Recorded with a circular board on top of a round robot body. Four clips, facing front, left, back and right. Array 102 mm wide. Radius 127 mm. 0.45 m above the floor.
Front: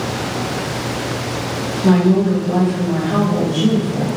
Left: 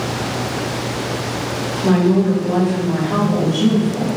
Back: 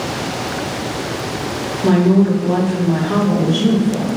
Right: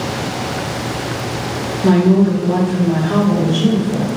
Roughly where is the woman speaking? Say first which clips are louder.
Right 3 dB, back 1 dB; behind right.